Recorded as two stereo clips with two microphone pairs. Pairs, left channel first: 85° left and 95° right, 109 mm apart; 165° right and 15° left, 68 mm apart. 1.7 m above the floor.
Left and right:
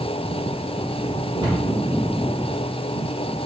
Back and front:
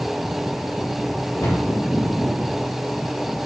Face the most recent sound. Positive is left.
turn(degrees=-135)